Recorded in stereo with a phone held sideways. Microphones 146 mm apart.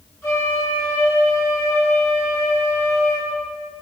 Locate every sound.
0.2 s a flute: 15° left (ahead or behind), 5.5 m